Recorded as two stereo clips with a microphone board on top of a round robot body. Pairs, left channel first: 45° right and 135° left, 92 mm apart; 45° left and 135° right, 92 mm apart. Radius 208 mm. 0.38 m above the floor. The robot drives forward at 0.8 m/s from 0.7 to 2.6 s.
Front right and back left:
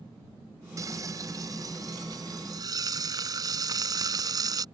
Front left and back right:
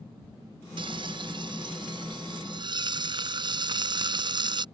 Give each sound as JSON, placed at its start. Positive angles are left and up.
{"t": 0.8, "sound": "frying", "azimuth_deg": -170}